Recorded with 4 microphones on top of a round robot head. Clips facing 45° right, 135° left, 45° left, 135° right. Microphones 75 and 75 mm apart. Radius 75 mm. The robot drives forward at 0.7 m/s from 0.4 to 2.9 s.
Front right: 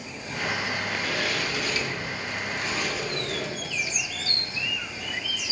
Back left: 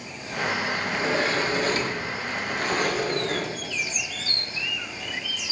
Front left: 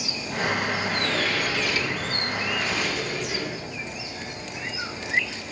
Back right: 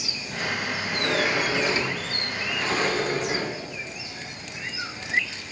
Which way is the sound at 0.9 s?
160° left.